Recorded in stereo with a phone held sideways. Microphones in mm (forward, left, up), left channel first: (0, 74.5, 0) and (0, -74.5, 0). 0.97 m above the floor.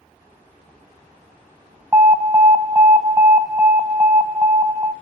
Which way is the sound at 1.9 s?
20° right (ahead or behind).